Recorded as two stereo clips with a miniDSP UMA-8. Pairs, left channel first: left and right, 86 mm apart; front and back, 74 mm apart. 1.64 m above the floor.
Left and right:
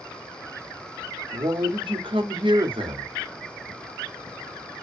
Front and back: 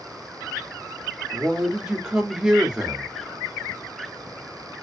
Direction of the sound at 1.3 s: 100° right.